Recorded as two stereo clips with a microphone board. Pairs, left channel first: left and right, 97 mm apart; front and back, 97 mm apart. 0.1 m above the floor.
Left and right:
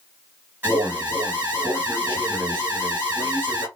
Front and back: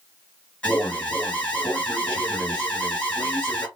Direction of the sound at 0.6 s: 60° right.